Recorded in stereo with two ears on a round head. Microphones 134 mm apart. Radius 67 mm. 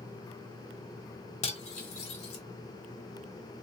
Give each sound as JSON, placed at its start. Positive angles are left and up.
{"t": 1.4, "sound": "cutlery clinking", "side_deg": 50, "distance_m": 1.5}